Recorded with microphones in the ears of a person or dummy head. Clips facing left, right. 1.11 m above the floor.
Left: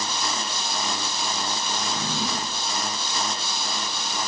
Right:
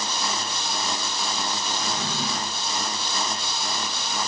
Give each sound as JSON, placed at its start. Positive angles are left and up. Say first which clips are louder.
{"t": 1.8, "sound": "a drawer", "louder": "left 1 dB", "side_deg": -35, "distance_m": 3.5}